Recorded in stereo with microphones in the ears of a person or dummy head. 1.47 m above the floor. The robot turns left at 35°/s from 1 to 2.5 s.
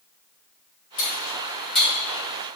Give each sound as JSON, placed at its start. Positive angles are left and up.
{"t": 1.0, "sound": "cutlery clinking", "side_deg": 25, "distance_m": 1.7}